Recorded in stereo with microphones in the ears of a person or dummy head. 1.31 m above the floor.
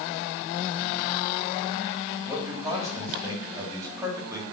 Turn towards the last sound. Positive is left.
turn(degrees=-10)  # may be behind; listen again after turning